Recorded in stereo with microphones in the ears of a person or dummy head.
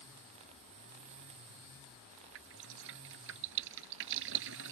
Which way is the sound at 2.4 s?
65° right (ahead or behind).